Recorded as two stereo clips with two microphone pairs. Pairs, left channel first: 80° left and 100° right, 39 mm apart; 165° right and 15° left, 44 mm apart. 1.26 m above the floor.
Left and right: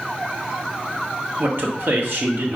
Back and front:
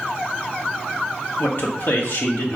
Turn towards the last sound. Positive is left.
turn(degrees=-135)